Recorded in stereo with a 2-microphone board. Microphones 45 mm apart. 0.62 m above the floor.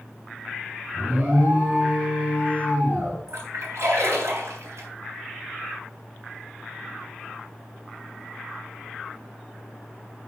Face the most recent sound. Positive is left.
turn(degrees=-75)  # may be behind; listen again after turning